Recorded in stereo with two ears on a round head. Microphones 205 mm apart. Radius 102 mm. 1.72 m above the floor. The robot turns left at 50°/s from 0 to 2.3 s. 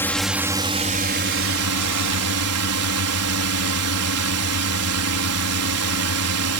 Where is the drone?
10° left; by 6.6 s 105° right.